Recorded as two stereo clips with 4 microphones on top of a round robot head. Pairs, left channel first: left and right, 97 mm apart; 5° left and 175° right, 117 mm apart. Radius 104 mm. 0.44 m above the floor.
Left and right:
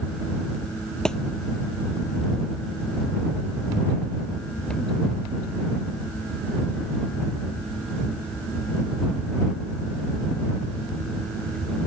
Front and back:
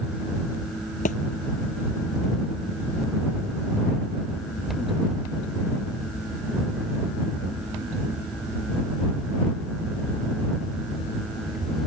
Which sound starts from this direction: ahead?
A thud, at 1.1 s.